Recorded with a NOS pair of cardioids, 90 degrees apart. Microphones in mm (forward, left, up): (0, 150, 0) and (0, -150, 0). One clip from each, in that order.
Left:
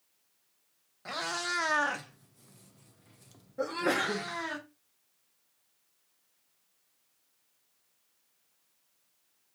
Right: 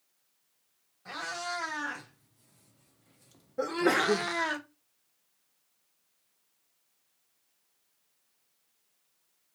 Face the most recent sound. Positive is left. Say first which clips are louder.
# right 3 dB
turn(degrees=-25)